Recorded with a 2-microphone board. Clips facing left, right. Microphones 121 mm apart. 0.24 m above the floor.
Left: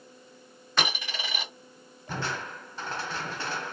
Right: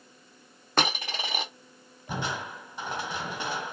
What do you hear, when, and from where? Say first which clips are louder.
0.8 s a dropped coin: right 3 dB; 50° right (ahead or behind), 1.7 m
2.1 s crushing: right 1 dB; 15° right (ahead or behind), 0.9 m